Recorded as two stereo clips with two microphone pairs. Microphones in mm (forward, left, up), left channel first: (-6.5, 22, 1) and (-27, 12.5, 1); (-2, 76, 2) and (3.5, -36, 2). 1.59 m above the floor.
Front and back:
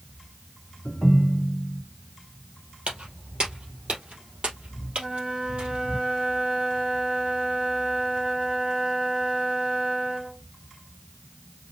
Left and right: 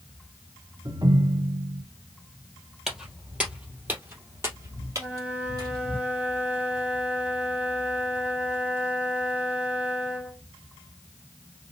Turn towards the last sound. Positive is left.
turn(degrees=-165)